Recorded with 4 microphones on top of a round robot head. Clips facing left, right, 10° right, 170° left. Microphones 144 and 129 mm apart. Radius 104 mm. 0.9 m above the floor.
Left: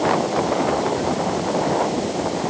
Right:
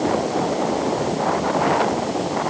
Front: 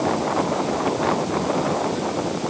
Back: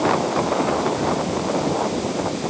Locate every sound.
Only background noise.